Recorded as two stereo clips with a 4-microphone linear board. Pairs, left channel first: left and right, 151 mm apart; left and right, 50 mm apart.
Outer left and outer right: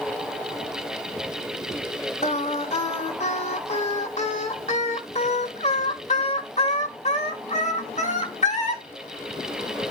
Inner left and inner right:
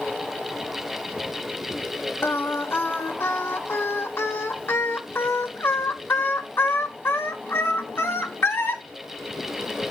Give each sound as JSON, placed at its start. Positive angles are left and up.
{"t": 2.2, "sound": "singing", "side_deg": 45, "distance_m": 1.2}